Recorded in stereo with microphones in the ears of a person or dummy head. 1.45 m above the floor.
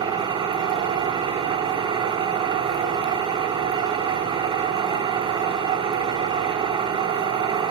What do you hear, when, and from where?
0.0 s an engine running: 30° right (ahead or behind), 0.9 m